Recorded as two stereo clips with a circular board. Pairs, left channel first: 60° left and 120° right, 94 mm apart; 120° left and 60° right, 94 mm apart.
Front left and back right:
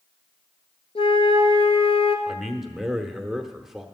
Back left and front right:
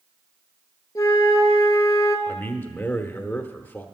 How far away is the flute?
About 1.2 m.